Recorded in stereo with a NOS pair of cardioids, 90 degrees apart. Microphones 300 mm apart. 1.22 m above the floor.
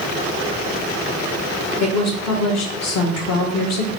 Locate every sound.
1.8 s a woman speaking: 60° left, 1.2 m